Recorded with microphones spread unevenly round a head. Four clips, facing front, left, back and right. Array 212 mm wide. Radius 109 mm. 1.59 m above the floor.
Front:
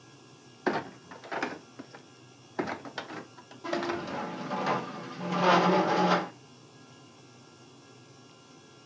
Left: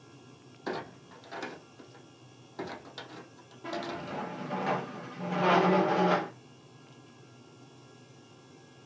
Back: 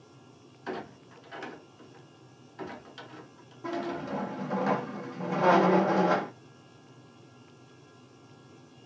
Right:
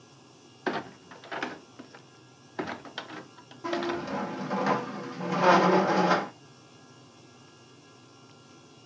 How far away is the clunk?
About 0.5 m.